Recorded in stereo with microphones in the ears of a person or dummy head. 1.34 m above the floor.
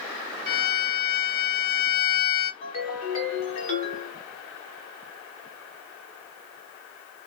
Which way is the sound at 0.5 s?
50° left (ahead or behind).